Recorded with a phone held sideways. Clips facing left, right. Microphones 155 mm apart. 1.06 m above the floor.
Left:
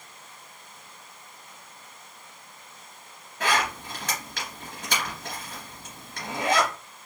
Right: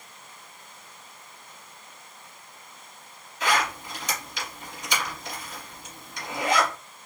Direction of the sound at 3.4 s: 65° left (ahead or behind).